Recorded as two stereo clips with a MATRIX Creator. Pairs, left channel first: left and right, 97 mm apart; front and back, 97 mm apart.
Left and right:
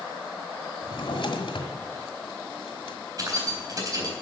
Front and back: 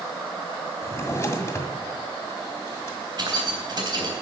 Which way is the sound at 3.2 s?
140° right.